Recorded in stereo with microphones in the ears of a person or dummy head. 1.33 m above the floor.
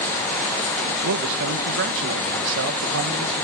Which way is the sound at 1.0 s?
65° right (ahead or behind).